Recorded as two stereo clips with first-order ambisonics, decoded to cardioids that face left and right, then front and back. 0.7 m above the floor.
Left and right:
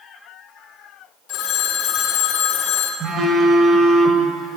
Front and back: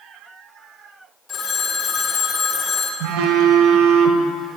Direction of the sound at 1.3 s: 60° left.